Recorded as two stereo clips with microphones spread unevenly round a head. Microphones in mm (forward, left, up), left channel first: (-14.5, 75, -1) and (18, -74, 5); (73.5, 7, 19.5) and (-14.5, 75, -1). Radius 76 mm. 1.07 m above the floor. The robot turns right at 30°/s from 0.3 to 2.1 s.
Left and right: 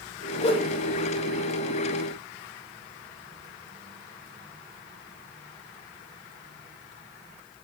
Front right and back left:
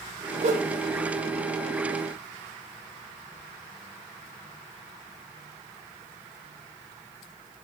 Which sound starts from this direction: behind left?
A whoosh, at 0.4 s.